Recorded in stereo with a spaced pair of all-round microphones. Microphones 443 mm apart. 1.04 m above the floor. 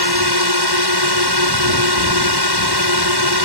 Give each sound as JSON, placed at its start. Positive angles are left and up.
{"t": 0.0, "sound": "a drone", "side_deg": -65}